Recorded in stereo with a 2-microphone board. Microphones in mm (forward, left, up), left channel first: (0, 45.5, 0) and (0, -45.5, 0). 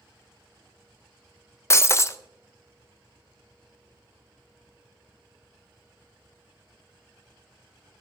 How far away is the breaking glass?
About 0.6 m.